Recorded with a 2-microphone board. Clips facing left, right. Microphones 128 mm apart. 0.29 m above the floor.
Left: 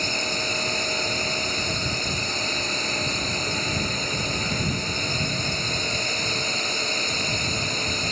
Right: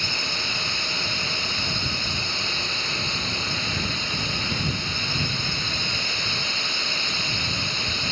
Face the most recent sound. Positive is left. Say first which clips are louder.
# left 4 dB
turn(degrees=40)  # may be behind; listen again after turning